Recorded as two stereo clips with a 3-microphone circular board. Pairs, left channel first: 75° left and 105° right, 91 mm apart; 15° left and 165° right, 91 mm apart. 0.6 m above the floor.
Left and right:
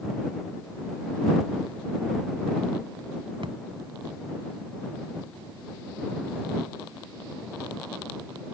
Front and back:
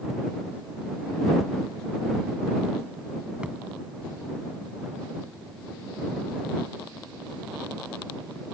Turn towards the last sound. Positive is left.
turn(degrees=-90)